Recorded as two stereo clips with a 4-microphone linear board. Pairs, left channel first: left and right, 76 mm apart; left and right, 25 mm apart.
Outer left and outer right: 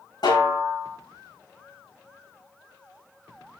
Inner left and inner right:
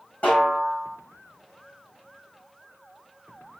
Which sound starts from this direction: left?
A snare drum, at 0.2 s.